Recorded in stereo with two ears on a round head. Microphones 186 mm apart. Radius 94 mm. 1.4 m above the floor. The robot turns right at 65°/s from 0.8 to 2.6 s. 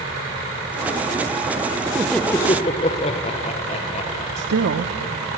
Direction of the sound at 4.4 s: 65° right (ahead or behind).